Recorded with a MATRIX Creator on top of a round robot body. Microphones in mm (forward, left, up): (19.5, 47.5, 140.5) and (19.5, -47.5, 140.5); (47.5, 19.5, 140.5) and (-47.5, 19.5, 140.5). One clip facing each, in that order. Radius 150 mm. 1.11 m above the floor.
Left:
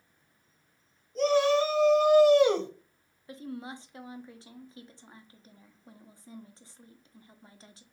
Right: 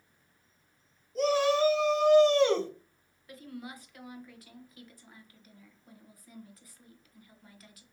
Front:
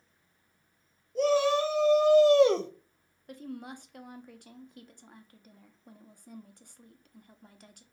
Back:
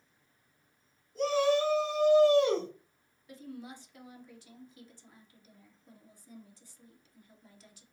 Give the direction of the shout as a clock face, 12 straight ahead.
12 o'clock.